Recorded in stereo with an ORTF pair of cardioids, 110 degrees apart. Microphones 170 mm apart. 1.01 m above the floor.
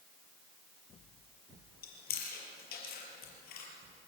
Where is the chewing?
65° left, 5.5 m.